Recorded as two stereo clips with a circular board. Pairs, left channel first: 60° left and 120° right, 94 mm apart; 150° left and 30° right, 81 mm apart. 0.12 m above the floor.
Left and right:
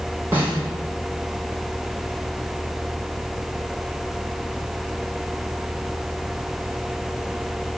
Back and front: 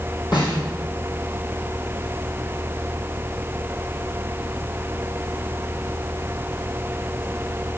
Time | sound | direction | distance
0.3 | a snare drum | 175° left | 4.5 m